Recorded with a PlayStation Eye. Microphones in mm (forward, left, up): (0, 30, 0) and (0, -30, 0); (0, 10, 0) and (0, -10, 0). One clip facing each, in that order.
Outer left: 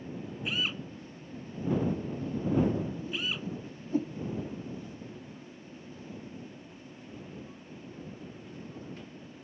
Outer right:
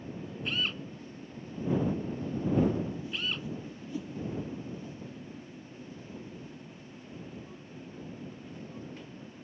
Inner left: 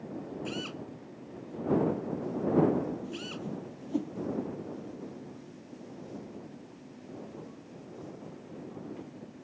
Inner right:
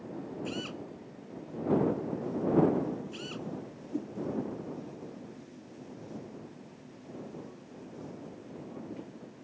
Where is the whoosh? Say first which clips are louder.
Outer left 1 dB, inner left 1 dB; 40° left (ahead or behind).